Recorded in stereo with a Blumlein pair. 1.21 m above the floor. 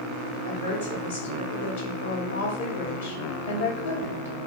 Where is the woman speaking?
65° left, 2.0 m.